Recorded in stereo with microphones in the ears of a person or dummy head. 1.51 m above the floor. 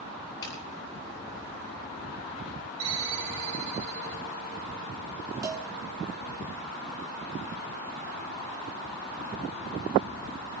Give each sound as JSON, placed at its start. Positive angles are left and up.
{"t": 0.4, "sound": "a clap", "side_deg": 30, "distance_m": 8.0}
{"t": 2.8, "sound": "a ringtone", "side_deg": -65, "distance_m": 3.0}
{"t": 5.4, "sound": "a cowbell", "side_deg": -15, "distance_m": 1.7}